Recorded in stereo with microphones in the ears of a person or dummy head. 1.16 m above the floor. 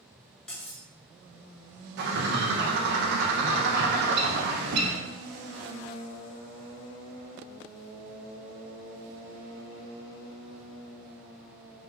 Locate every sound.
0.5 s cutlery clinking: centre (ahead or behind), 0.7 m
2.0 s a bird: 65° right (ahead or behind), 0.6 m